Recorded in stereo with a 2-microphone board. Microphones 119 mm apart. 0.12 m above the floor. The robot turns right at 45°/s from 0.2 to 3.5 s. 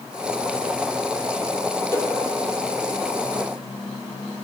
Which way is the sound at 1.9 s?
20° left (ahead or behind).